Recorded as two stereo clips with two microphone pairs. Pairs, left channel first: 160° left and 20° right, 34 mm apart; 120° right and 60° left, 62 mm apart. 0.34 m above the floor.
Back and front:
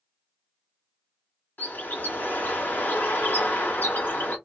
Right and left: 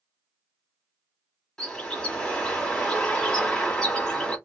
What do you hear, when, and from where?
1.6 s a bird: 165° left, 1.4 m